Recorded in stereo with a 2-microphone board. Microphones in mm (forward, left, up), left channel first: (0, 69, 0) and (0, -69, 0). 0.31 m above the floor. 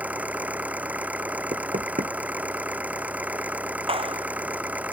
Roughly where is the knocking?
Right.